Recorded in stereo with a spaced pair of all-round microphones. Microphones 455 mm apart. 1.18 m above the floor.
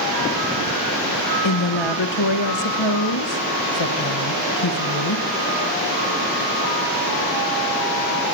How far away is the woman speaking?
About 1.3 m.